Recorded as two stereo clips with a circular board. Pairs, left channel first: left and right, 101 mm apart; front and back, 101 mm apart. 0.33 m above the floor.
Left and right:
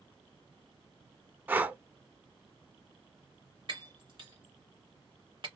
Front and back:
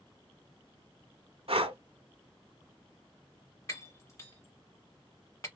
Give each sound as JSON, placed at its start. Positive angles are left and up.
{"t": 1.5, "sound": "breathing", "azimuth_deg": -160, "distance_m": 0.7}
{"t": 3.7, "sound": "breaking glass", "azimuth_deg": -60, "distance_m": 1.4}